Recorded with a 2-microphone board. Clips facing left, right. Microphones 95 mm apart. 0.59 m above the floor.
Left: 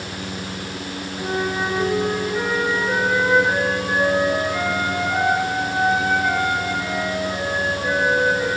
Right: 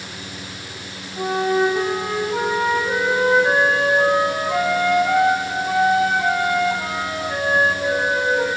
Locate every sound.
1.2 s a flute: 75° right (ahead or behind), 3.5 m